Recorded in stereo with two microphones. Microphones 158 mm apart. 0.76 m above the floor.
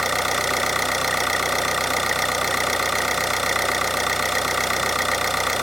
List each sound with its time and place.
0.0 s an engine running: centre (ahead or behind), 1.0 m